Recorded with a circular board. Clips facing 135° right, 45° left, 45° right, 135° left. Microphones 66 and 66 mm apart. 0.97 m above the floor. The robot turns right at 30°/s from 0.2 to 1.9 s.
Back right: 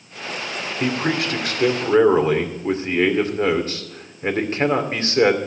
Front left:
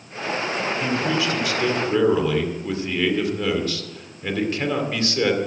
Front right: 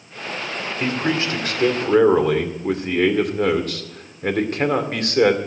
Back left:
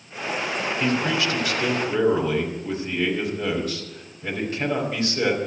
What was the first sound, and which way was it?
A man speaking, 110° right.